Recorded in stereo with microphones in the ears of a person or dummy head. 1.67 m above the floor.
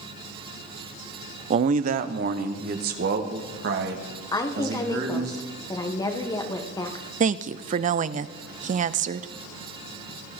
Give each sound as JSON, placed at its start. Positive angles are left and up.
{"t": 1.5, "sound": "a man speaking", "side_deg": -40, "distance_m": 0.6}
{"t": 4.3, "sound": "a woman speaking", "side_deg": 20, "distance_m": 1.6}
{"t": 7.2, "sound": "a woman speaking", "side_deg": -45, "distance_m": 0.5}